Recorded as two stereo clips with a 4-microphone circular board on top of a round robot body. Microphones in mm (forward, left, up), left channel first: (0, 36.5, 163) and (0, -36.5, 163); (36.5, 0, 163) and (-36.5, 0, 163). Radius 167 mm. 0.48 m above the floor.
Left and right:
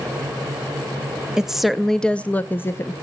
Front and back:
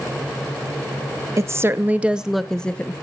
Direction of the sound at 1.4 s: 165° right.